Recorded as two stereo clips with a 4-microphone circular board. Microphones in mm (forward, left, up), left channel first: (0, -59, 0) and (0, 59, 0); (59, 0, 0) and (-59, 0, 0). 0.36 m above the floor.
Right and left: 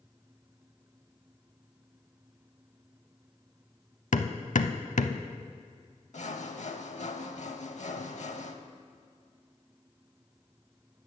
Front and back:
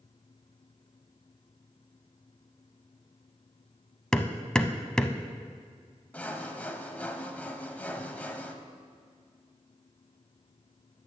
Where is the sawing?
75° right, 0.7 m.